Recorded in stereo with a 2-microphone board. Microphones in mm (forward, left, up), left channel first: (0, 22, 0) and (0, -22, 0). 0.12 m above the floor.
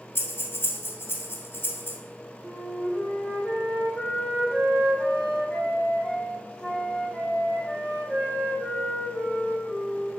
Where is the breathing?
60° left (ahead or behind), 1.9 m.